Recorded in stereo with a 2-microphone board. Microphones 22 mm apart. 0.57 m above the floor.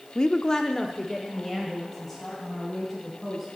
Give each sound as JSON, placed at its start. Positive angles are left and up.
{"t": 0.1, "sound": "a woman speaking", "side_deg": 40, "distance_m": 0.8}